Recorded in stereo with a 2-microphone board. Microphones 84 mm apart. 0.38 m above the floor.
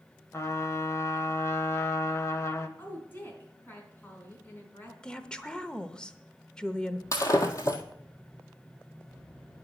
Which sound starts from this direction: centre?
A woman speaking, at 5.0 s.